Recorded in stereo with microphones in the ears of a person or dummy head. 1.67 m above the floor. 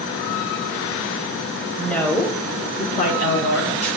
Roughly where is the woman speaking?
Centre.